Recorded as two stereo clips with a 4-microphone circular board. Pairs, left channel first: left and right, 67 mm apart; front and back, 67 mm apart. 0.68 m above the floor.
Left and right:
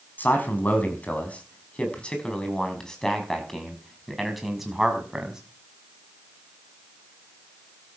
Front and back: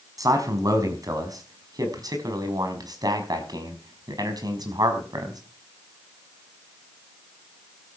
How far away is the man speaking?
About 5 m.